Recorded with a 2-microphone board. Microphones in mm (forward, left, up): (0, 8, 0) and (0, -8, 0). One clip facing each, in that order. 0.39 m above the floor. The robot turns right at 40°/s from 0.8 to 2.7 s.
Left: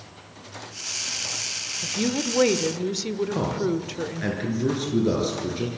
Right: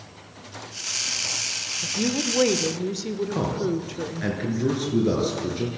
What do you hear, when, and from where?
1.8 s a woman speaking: 10° left (ahead or behind), 1.4 m; by 4.3 s 20° left (ahead or behind), 1.4 m
3.3 s a man speaking: 5° left (ahead or behind), 6.5 m